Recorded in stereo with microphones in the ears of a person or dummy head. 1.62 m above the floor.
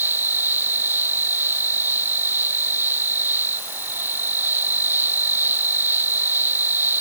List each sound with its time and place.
0.0 s an insect: 15° right (ahead or behind)